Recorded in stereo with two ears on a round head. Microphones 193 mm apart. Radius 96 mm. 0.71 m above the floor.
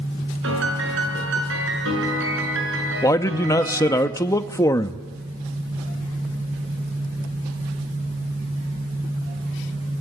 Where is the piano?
65° right (ahead or behind), 7.5 m.